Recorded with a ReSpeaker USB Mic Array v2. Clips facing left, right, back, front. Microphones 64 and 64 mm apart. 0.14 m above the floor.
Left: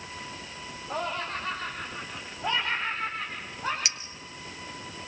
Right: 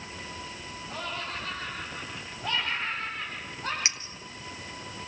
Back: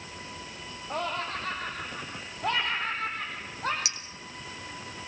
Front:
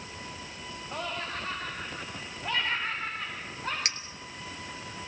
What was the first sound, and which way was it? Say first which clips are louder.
Laughter: left 5 dB, back 4 dB; 145° left.